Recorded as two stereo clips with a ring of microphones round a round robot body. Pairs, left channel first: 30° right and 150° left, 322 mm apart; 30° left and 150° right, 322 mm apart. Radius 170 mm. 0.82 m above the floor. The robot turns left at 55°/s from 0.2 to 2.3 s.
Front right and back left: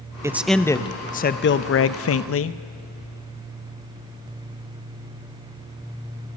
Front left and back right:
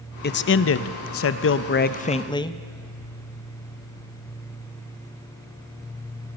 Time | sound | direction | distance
0.2 | a man speaking | 75° left | 0.7 m